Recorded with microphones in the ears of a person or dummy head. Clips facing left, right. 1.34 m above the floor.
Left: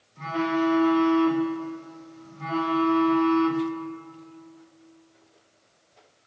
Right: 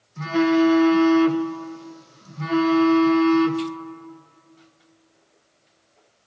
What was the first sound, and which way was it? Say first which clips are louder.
A phone buzzing: right 8 dB; 65° right (ahead or behind).